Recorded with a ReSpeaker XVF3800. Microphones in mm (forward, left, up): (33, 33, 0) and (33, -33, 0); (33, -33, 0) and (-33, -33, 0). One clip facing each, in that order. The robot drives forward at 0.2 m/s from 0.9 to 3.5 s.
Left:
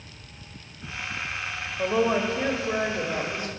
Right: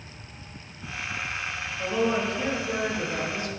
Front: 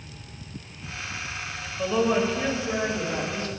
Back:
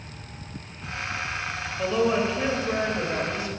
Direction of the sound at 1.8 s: 90° left.